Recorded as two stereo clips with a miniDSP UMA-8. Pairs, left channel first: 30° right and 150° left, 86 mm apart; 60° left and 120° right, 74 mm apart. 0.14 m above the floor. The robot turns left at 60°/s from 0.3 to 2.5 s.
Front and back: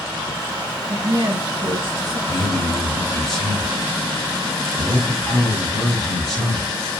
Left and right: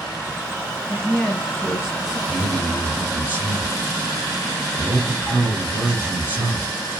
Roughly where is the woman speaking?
Behind left.